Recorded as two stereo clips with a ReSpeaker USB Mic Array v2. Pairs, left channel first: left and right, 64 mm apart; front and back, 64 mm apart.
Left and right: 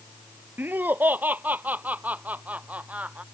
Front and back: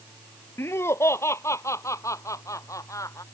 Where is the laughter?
40° right; by 3.2 s 25° right.